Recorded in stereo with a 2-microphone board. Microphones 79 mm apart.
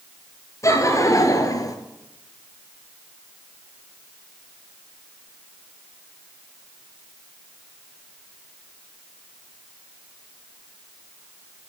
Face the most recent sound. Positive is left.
turn(degrees=50)  # may be behind; listen again after turning